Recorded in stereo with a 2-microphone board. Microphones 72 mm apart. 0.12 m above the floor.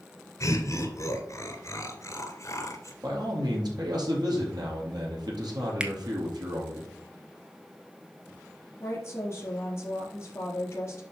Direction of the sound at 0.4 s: 40° left (ahead or behind).